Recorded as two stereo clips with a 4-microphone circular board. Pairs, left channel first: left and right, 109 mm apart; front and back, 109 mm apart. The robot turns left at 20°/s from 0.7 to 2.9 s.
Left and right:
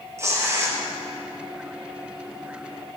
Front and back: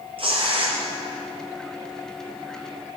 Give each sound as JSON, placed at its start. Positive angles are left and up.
{"t": 0.2, "sound": "tearing paper", "azimuth_deg": -150, "distance_m": 4.0}